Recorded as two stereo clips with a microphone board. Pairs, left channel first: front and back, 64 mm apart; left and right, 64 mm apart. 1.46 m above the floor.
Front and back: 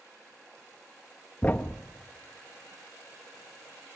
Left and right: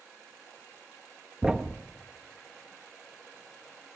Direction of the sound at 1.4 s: 30° right.